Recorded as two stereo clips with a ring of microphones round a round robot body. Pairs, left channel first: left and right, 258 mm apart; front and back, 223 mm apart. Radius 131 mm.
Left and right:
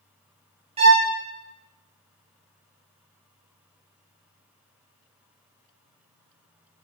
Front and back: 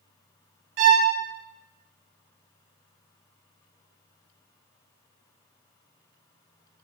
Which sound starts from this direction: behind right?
A violin, at 0.8 s.